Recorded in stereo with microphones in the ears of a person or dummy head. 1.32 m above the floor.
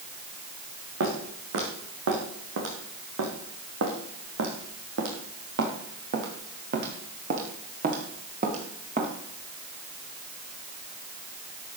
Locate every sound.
1.0 s footsteps: 65° right (ahead or behind), 4.5 m; by 9.1 s 35° right (ahead or behind), 4 m